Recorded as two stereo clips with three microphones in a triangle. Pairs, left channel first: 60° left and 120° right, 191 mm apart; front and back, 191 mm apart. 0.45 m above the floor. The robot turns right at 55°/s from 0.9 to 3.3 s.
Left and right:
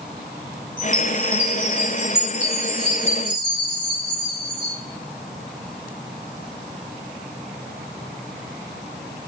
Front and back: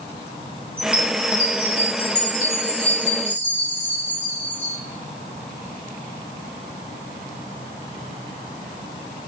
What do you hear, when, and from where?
0.8 s a chime: 120° right, 6 m; by 4.7 s 15° left, 6 m